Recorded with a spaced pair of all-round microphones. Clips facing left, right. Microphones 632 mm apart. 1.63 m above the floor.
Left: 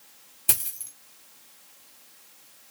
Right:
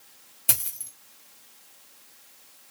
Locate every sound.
0.5 s a dropped coin: 15° right (ahead or behind), 1.5 m